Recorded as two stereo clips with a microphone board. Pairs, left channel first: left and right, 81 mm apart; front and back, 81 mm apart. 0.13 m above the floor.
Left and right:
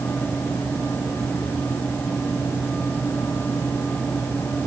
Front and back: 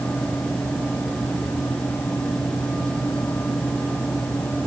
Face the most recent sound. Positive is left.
No sound to turn to.